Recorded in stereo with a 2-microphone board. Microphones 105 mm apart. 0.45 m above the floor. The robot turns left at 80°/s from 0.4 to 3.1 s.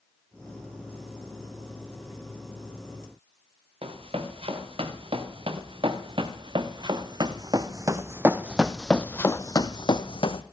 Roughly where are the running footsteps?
Right.